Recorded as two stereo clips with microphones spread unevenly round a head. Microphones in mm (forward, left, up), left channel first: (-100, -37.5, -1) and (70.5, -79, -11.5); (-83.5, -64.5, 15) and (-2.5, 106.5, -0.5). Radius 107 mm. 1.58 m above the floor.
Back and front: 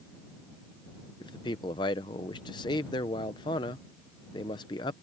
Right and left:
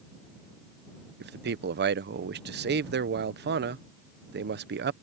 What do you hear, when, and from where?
1.2 s a man speaking: 100° left